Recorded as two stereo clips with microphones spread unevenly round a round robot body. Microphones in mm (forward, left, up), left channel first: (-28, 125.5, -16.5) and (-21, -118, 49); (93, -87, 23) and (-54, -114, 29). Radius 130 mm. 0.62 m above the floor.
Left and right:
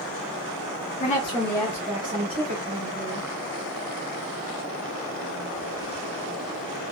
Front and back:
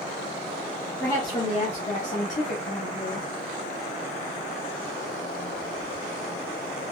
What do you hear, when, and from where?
1.0 s a woman speaking: 80° left, 0.7 m; by 3.3 s 25° right, 1.8 m